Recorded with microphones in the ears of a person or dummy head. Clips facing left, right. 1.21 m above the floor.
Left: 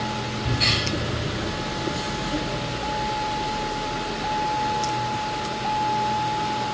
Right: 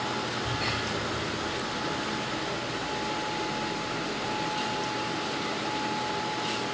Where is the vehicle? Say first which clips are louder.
Left 3 dB; 60° left (ahead or behind); by 6.8 s 65° left (ahead or behind).